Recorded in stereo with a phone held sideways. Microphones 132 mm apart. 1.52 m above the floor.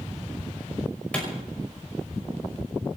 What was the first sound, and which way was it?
A clap, 10° left (ahead or behind).